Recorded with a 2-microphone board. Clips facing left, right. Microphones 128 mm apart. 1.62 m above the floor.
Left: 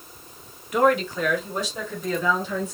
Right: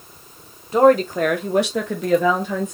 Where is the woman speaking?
30° right (ahead or behind), 0.9 m; by 2.7 s 50° right (ahead or behind), 1.4 m.